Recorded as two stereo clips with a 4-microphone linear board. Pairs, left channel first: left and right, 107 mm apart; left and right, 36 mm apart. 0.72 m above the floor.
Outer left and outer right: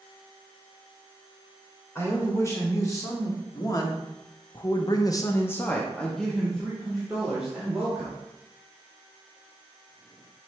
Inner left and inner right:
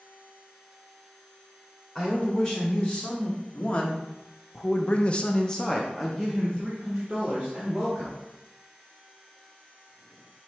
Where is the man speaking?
25° left (ahead or behind), 2.5 m; by 8.2 s 10° right (ahead or behind), 2 m.